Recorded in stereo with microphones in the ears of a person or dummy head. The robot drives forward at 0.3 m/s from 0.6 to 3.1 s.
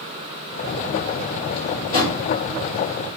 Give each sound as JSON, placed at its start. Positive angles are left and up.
{"t": 1.5, "sound": "a drawer", "side_deg": 35, "distance_m": 1.2}